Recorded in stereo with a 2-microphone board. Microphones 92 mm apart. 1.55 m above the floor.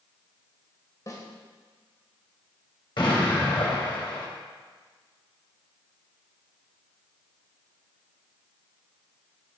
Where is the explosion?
70° left (ahead or behind), 4.5 m.